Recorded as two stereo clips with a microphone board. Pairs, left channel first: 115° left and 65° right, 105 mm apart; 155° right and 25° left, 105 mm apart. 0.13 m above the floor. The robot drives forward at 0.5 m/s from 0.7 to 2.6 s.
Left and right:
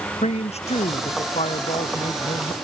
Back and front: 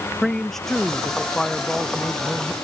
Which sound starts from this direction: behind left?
A man speaking, at 0.2 s.